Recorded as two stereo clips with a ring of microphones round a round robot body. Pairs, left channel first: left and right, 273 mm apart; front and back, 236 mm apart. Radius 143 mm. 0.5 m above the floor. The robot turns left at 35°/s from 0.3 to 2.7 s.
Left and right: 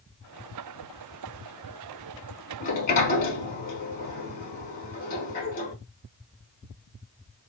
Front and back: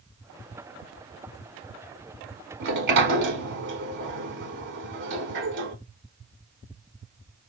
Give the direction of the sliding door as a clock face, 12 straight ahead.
7 o'clock.